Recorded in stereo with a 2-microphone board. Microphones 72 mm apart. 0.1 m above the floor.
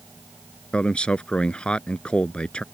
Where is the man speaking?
15° left (ahead or behind).